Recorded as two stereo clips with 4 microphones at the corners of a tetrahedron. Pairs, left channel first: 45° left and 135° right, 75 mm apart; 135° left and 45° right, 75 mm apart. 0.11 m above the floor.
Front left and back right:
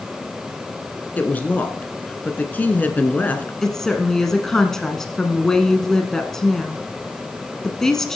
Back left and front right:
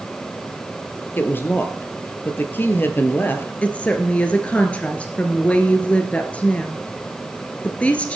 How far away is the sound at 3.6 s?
About 1.1 m.